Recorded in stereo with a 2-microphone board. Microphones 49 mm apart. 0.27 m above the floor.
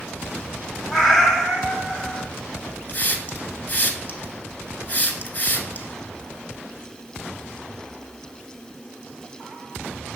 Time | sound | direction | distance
0.9 | a cat meowing | 10° left (ahead or behind) | 0.8 m
2.9 | a hiss | 35° left (ahead or behind) | 0.6 m